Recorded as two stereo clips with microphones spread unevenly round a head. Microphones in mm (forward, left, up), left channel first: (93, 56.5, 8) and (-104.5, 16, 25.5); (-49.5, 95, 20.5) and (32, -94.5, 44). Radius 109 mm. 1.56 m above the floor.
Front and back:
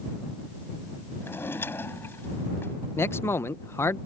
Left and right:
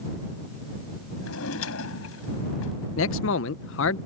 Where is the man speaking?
90° left.